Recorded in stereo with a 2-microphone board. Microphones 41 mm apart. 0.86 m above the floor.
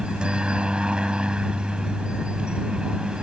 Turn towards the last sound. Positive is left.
turn(degrees=-25)  # may be behind; listen again after turning